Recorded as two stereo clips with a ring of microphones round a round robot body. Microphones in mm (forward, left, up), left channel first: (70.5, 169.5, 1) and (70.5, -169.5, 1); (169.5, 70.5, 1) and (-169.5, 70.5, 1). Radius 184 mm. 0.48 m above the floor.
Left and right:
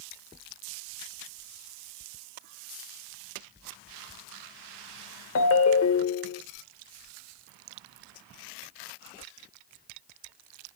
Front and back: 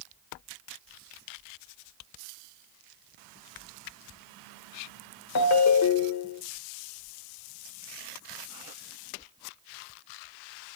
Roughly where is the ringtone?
Ahead left.